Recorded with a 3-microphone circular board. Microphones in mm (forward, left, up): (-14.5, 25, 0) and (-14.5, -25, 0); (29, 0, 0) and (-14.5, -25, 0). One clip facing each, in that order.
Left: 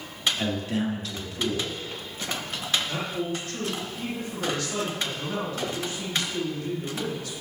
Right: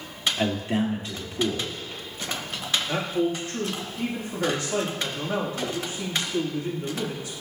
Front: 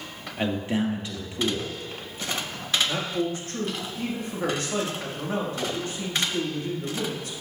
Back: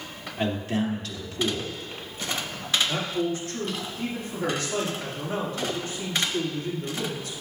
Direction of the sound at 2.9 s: 20° right.